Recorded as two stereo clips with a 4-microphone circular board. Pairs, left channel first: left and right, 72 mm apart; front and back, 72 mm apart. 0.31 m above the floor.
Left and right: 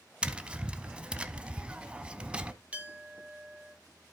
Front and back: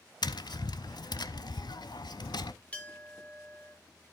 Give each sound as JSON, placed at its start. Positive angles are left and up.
{"t": 0.2, "sound": "tapping", "azimuth_deg": -15, "distance_m": 0.6}
{"t": 2.7, "sound": "a clink", "azimuth_deg": -45, "distance_m": 1.0}